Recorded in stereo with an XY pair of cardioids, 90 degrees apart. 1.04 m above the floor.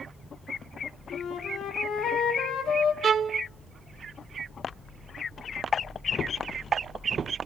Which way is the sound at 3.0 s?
50° right.